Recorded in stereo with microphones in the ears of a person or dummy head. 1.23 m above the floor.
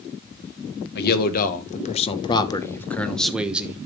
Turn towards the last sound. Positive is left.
turn(degrees=-10)  # may be behind; listen again after turning